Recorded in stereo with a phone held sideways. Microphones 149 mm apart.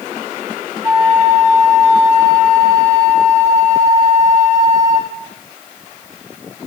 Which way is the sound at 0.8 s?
15° right (ahead or behind).